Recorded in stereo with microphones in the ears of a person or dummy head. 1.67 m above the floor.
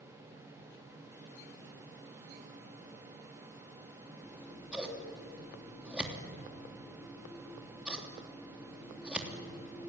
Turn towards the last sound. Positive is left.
turn(degrees=-5)  # may be behind; listen again after turning